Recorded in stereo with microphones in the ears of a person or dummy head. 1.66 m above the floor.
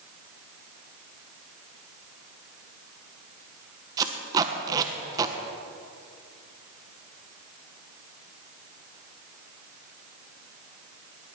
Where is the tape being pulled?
20° right (ahead or behind), 1.1 m.